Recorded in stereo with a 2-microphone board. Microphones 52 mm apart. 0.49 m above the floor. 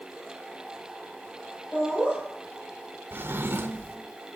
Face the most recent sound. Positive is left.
turn(degrees=-45)  # may be behind; listen again after turning